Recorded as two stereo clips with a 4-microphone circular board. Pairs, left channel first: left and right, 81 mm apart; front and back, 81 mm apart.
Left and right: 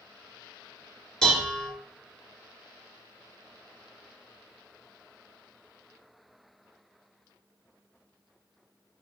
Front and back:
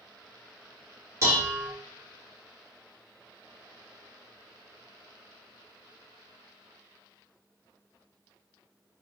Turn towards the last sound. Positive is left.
turn(degrees=165)